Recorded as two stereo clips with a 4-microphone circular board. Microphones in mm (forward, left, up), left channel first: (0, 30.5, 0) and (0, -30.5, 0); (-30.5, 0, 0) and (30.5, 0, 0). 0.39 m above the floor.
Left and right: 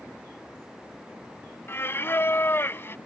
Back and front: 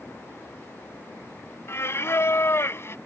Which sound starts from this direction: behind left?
Singing, at 1.7 s.